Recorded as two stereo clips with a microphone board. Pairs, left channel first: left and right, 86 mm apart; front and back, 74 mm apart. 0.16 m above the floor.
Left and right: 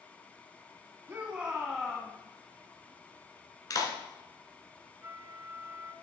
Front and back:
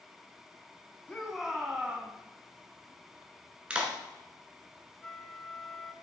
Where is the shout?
65° right, 1.4 m; by 2.1 s 145° left, 1.4 m.